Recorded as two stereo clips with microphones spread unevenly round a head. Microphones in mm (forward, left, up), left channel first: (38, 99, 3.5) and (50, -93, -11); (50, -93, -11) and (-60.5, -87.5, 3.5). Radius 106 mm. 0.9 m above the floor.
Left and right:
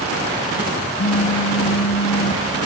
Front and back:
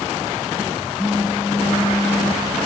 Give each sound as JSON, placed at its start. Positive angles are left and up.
{"t": 1.0, "sound": "a phone buzzing", "azimuth_deg": 95, "distance_m": 0.7}